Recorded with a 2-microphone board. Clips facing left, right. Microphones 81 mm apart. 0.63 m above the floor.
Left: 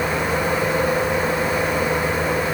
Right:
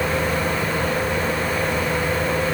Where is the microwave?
No microwave in this recording.